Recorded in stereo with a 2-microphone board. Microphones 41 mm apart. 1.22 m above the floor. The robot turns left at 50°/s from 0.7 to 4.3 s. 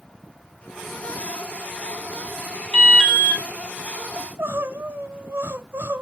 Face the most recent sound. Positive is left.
turn(degrees=-65)  # may be behind; listen again after turning